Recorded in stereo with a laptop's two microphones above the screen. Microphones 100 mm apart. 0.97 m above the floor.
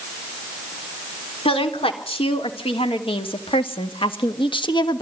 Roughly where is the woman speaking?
Left.